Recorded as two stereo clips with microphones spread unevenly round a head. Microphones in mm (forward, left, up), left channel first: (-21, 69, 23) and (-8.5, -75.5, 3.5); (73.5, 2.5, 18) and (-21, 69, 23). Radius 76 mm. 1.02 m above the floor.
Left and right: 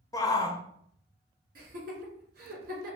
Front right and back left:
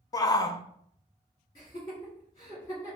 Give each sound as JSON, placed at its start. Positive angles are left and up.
{"t": 0.1, "sound": "a shout", "azimuth_deg": 25, "distance_m": 0.5}
{"t": 1.6, "sound": "laughter", "azimuth_deg": -100, "distance_m": 2.5}